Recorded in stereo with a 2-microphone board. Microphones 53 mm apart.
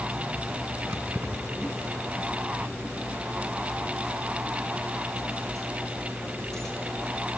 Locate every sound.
0.9 s keys jangling: 55° right (ahead or behind), 3.5 m; by 6.8 s 10° left (ahead or behind), 5.5 m